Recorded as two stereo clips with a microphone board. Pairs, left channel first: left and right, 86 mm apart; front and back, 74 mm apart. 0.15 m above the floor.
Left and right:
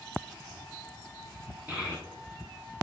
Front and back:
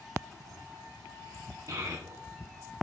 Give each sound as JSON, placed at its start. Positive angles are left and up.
{"t": 1.7, "sound": "a child speaking", "azimuth_deg": -160, "distance_m": 1.5}